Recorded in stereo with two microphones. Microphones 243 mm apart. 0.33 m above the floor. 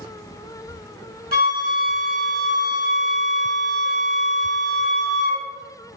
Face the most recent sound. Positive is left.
turn(degrees=-40)  # may be behind; listen again after turning